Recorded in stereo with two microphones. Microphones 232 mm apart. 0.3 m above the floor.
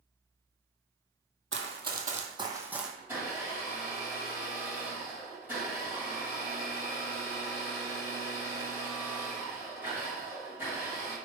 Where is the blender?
10° right (ahead or behind), 1.9 m.